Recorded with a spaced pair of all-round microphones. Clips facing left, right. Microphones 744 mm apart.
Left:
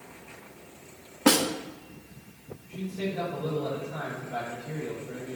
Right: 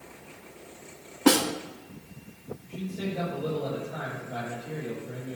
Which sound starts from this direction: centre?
A snare drum, at 1.3 s.